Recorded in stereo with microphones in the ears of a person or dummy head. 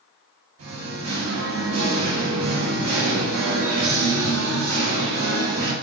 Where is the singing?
70° right (ahead or behind), 0.9 m.